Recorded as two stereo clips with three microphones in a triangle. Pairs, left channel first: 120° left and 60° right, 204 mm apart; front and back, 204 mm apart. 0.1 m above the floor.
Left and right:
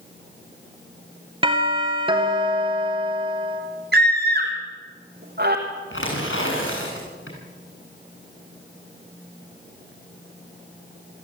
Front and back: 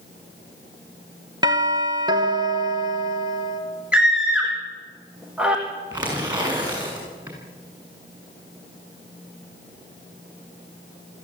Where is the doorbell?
115° right, 2 m.